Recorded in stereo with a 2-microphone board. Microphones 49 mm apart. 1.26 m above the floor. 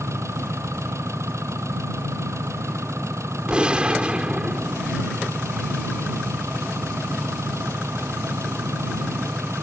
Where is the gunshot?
20° right (ahead or behind).